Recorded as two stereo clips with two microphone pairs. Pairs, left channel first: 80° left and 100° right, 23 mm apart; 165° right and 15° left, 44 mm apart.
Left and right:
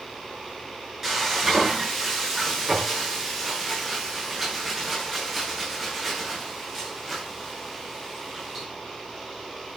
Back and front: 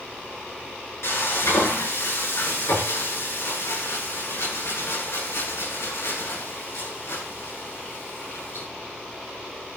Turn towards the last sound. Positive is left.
turn(degrees=-170)